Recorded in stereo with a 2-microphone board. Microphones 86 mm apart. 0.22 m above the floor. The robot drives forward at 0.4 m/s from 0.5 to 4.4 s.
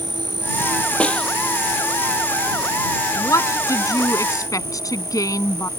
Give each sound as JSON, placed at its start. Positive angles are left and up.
{"t": 0.0, "sound": "an insect", "side_deg": -70}
{"t": 1.0, "sound": "a snare drum", "side_deg": 15}
{"t": 3.2, "sound": "a woman speaking", "side_deg": 40}